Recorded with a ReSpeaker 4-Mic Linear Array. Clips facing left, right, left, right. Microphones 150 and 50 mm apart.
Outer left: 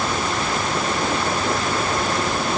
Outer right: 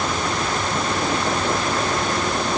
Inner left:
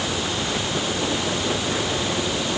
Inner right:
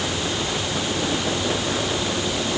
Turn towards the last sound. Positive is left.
No sound to turn to.